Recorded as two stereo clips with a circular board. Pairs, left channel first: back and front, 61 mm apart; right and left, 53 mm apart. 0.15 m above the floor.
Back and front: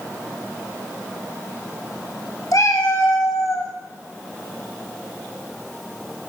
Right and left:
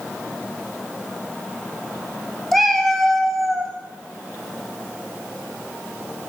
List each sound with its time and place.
2.5 s a cat meowing: straight behind, 1.2 m